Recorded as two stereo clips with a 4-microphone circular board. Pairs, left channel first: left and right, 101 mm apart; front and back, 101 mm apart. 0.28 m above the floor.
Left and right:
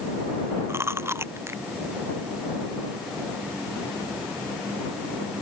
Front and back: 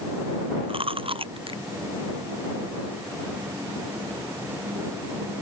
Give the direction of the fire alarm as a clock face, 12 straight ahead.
I don't hear a fire alarm.